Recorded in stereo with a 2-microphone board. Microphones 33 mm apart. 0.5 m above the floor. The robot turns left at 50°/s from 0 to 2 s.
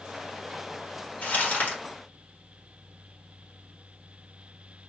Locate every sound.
1.2 s crumpling: 55° left (ahead or behind), 1.7 m; by 1.8 s 45° left (ahead or behind), 1.7 m